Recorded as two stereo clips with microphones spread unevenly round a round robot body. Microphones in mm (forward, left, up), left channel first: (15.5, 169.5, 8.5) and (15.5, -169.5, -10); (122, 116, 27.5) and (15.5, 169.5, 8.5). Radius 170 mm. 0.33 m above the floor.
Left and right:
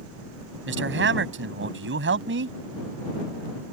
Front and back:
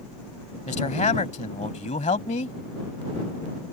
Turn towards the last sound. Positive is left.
turn(degrees=-40)